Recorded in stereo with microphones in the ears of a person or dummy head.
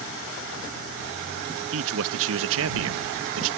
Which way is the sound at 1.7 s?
75° right (ahead or behind).